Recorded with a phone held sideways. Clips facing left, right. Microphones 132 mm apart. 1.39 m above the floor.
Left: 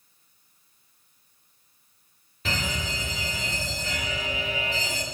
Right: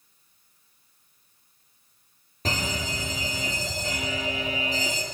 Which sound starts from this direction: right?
A fire alarm, at 2.5 s.